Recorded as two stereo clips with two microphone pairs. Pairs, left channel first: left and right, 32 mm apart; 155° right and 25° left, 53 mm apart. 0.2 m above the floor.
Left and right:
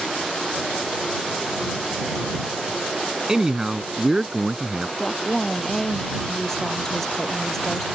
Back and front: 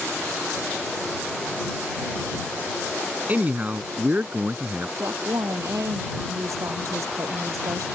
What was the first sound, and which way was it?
A man speaking, 25° right.